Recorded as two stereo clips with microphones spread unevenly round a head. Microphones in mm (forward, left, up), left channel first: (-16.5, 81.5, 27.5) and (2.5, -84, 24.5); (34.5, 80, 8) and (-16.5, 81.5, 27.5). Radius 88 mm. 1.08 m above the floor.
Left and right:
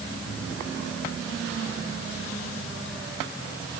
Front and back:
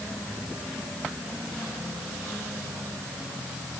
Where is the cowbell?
I don't hear a cowbell.